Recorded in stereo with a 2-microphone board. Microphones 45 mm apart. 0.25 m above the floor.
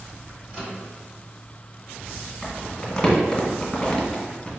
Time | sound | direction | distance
0.5 | a microwave | 20° right (ahead or behind) | 1.2 m
2.4 | crumpling | 10° left (ahead or behind) | 1.5 m